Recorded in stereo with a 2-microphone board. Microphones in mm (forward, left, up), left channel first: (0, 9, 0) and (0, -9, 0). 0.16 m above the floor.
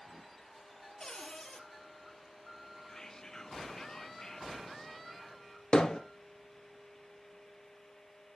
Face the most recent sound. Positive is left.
turn(degrees=45)  # may be behind; listen again after turning